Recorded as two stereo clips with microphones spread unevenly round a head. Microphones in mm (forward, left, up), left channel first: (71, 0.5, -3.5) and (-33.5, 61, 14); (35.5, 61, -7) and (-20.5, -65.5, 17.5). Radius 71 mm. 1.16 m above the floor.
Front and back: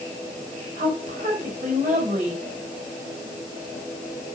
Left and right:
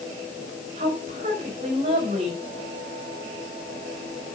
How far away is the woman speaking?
About 5 m.